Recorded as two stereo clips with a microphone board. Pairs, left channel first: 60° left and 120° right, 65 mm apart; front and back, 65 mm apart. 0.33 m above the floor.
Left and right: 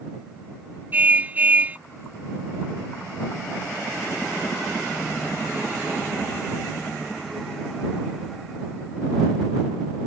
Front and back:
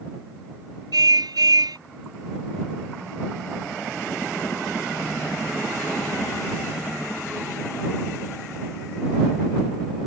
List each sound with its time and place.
0.9 s a car horn: 175° left